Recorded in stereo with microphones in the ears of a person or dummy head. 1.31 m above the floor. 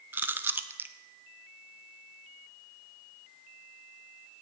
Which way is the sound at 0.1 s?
10° right (ahead or behind).